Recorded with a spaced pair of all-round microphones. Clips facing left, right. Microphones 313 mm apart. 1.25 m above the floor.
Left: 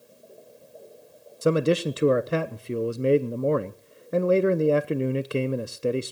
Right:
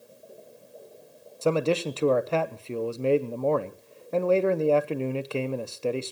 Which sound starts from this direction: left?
A man speaking, at 1.4 s.